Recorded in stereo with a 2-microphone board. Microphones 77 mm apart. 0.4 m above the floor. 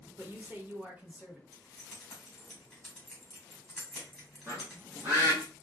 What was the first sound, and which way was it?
A man speaking, 30° right (ahead or behind).